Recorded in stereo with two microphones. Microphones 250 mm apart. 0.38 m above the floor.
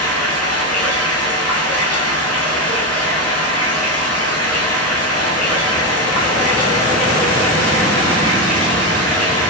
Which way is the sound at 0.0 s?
70° left (ahead or behind).